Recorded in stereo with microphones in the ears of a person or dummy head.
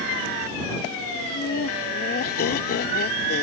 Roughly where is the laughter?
Left.